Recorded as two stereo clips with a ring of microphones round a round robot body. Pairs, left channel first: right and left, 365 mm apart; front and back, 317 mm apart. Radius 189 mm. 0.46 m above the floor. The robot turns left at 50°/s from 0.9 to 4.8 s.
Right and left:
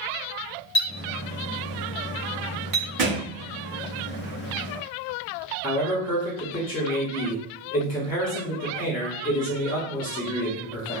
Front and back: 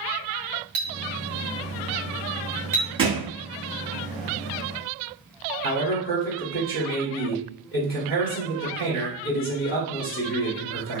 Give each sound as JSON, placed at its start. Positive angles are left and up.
{"t": 0.8, "sound": "a clink", "azimuth_deg": -170, "distance_m": 1.7}
{"t": 3.0, "sound": "a thud", "azimuth_deg": 105, "distance_m": 1.9}
{"t": 5.6, "sound": "a man speaking", "azimuth_deg": -30, "distance_m": 1.5}